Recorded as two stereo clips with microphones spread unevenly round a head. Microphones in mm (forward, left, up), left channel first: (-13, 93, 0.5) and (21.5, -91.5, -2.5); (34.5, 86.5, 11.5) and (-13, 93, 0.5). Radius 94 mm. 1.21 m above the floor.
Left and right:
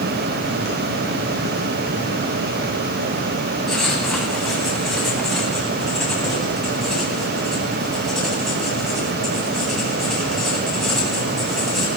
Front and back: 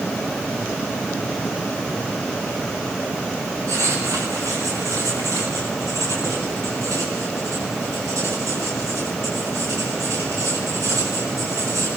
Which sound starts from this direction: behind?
Writing, at 3.7 s.